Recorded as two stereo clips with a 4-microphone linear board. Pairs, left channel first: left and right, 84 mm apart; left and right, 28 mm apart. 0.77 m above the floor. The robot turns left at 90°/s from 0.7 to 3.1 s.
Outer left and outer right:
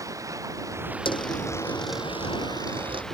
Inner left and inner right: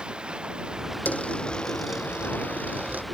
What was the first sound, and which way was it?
Running water, 140° right.